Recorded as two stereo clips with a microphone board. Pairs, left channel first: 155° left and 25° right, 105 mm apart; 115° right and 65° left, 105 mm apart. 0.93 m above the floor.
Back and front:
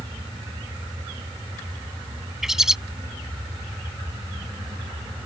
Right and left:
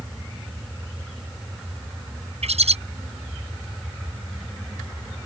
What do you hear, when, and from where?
2.4 s a bird: 65° left